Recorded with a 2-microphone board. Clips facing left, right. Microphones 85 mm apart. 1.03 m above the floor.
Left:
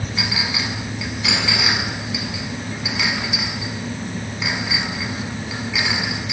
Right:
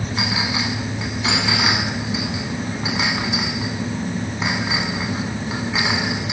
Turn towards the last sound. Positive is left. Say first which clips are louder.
# right 2 dB
turn(degrees=-30)  # may be behind; listen again after turning